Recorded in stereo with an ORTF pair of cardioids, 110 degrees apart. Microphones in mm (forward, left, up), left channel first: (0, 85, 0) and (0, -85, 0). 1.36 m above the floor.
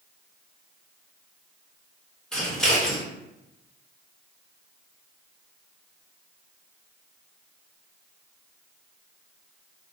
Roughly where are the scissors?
Ahead.